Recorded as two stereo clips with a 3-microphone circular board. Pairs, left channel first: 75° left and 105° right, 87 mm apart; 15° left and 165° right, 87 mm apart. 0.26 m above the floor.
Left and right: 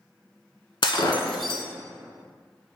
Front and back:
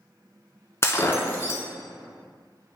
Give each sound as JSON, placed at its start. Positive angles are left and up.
{"t": 0.8, "sound": "breaking glass", "azimuth_deg": 75, "distance_m": 0.9}